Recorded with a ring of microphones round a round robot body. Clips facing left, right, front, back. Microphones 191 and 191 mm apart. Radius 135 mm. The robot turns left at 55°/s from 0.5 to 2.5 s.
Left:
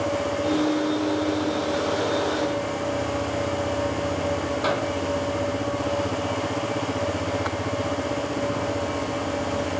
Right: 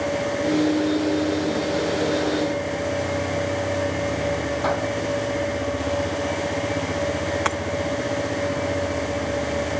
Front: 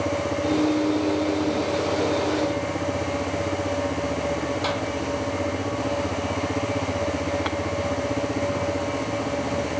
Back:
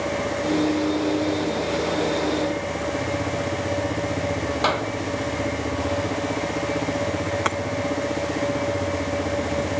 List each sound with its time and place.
4.6 s a clap: 160° left
7.5 s breaking glass: 125° right